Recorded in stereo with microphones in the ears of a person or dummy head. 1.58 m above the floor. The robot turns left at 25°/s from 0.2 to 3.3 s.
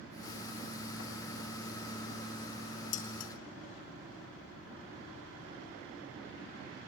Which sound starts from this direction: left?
Dishes clattering, at 2.9 s.